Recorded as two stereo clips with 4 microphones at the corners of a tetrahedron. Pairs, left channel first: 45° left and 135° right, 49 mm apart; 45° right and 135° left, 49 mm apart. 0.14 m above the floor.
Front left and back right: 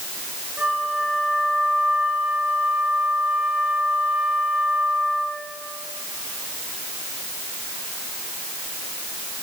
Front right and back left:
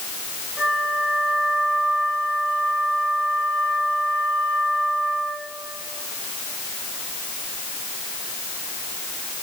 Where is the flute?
175° right, 4.5 m.